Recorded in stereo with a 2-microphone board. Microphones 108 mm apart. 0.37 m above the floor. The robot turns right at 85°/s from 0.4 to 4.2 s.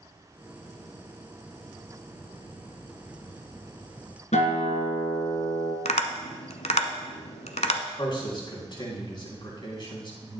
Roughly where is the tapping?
Left.